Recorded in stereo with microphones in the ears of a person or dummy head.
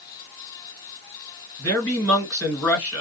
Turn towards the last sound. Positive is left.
turn(degrees=0)  # may be behind; listen again after turning